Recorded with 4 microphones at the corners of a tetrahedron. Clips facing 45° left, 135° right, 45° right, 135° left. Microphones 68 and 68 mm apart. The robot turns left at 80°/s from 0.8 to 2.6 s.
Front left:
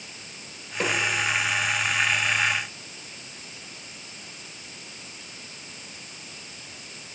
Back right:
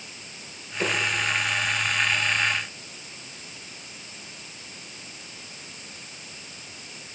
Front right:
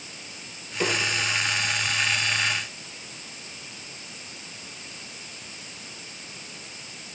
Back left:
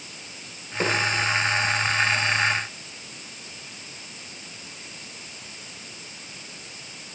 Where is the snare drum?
85° left, 4 m; by 1.0 s 70° left, 4 m.